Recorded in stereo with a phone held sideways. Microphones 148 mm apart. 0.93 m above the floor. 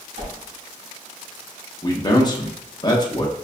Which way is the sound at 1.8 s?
30° left (ahead or behind).